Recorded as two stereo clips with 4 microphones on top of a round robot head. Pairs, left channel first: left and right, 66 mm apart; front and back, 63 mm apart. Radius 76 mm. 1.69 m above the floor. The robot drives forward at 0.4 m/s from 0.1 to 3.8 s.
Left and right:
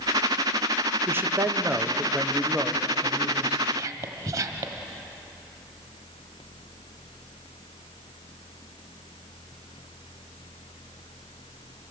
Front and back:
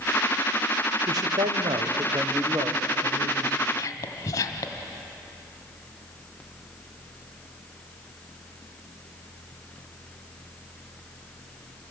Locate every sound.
1.1 s a man speaking: 145° right, 0.9 m; by 3.6 s 165° right, 1.8 m
3.7 s whispering: 45° right, 1.4 m